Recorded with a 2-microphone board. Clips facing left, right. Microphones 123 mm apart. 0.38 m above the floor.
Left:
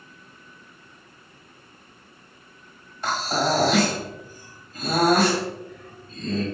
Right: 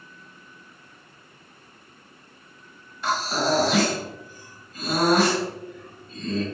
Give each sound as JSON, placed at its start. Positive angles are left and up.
{"t": 3.0, "sound": "breathing", "side_deg": 40, "distance_m": 1.3}